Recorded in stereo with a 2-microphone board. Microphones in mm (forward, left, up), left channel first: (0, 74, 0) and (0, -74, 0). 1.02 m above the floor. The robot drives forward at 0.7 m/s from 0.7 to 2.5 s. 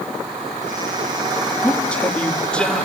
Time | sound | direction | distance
1.6 | a man speaking | 10° left (ahead or behind) | 1.6 m